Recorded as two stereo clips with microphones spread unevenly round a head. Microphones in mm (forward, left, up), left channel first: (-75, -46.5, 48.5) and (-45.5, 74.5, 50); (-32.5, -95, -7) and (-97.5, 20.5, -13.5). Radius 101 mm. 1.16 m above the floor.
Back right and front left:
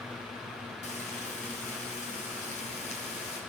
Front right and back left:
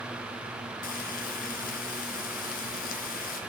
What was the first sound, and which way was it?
Frying, 50° right.